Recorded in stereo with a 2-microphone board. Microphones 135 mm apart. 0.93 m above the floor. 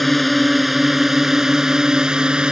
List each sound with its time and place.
0.0 s a drone: centre (ahead or behind); by 2.5 s 5° right (ahead or behind)